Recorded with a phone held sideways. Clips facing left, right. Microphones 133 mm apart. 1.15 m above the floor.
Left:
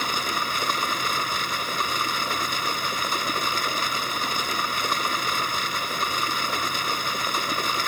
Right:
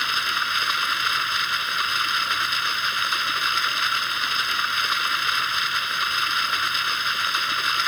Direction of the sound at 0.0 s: 40° left (ahead or behind).